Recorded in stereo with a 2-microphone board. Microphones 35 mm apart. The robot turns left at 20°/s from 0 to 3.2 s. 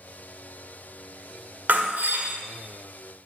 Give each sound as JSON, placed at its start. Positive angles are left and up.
{"t": 1.7, "sound": "breaking glass", "side_deg": -55, "distance_m": 1.4}